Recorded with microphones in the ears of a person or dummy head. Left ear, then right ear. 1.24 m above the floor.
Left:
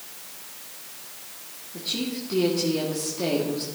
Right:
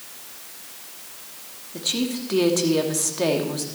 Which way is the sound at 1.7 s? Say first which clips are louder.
Right 4 dB; 45° right (ahead or behind).